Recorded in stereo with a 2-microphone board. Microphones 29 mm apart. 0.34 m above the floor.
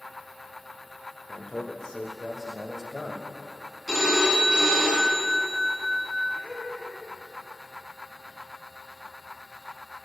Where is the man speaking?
30° left (ahead or behind), 1.0 m; by 3.3 s 5° right (ahead or behind), 1.4 m.